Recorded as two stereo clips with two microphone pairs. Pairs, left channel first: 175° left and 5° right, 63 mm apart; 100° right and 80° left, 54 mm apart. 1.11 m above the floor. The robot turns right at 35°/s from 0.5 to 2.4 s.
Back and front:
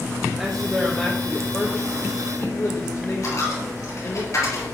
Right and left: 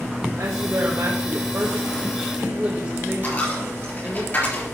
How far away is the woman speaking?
About 1.3 m.